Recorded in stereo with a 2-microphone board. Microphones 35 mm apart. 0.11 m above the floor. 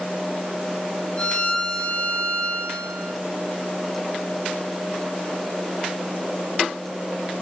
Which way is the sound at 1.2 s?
30° left (ahead or behind).